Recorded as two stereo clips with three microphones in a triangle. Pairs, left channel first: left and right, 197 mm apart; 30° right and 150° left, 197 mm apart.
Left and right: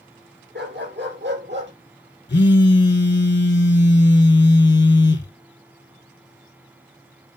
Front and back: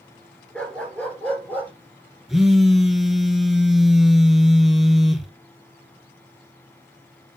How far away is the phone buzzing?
About 0.8 m.